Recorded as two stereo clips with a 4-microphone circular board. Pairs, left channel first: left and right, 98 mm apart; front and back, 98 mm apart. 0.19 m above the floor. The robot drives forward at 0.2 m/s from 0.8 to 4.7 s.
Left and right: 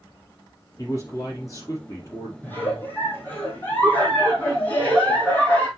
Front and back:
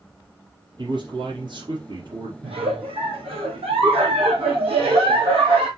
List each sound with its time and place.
0.8 s a man speaking: 145° left, 3.5 m
2.4 s a giggle: 160° left, 3 m